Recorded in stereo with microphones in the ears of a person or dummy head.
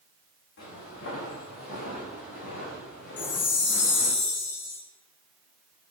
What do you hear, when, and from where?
0.6 s footsteps: 65° left (ahead or behind), 8.5 m; by 4.2 s 75° left (ahead or behind), 7 m
3.2 s a chime: 55° left (ahead or behind), 3.5 m